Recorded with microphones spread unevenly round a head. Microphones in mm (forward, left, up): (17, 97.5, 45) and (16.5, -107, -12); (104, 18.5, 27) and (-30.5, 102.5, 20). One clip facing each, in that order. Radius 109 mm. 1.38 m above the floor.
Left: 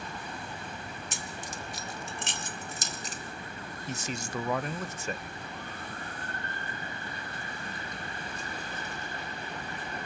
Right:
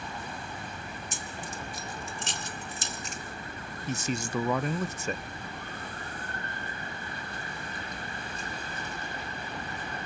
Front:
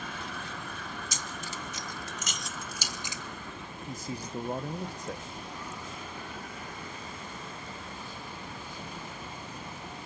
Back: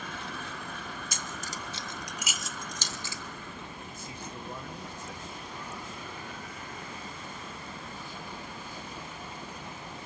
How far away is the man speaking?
About 0.6 m.